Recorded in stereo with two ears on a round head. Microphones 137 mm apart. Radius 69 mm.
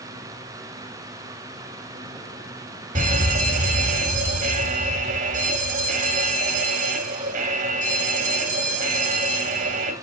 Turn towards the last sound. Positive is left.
turn(degrees=-50)  # may be behind; listen again after turning